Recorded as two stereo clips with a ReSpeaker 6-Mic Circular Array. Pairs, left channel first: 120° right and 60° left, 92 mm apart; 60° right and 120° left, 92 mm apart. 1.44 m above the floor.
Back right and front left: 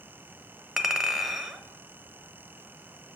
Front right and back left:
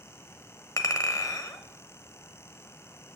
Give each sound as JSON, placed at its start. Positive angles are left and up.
{"t": 0.8, "sound": "a clink", "azimuth_deg": -25, "distance_m": 0.7}